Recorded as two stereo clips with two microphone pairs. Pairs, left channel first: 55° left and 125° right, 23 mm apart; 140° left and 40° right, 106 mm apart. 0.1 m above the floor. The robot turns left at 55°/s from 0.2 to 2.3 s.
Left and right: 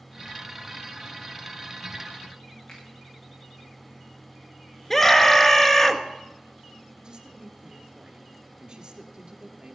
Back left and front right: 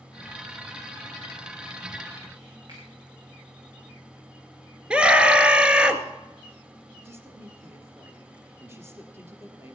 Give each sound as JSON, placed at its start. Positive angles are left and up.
{"t": 2.7, "sound": "a finger snap", "azimuth_deg": 0, "distance_m": 7.5}
{"t": 4.9, "sound": "a scream", "azimuth_deg": 20, "distance_m": 1.5}
{"t": 7.0, "sound": "a woman speaking", "azimuth_deg": -100, "distance_m": 2.5}